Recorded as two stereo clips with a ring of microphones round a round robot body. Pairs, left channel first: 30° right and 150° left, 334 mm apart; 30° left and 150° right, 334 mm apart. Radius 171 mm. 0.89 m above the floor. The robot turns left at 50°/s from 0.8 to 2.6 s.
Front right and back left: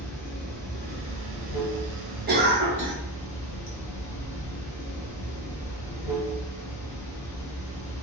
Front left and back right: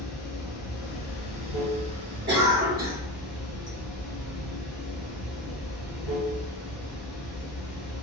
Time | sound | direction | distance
0.0 | running water | 30° left | 1.5 m
2.3 | a cough | 175° right | 1.0 m